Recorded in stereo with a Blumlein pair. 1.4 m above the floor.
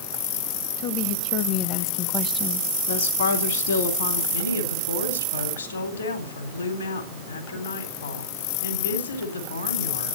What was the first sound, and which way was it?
A woman speaking, 45° left.